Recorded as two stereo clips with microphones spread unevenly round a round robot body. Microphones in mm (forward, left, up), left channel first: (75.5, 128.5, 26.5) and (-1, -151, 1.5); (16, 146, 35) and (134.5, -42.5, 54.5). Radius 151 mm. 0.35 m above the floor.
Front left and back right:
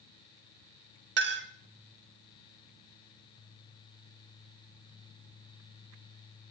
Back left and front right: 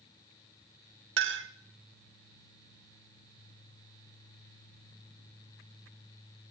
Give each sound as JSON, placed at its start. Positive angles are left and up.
{"t": 1.2, "sound": "a clink", "azimuth_deg": -70, "distance_m": 0.9}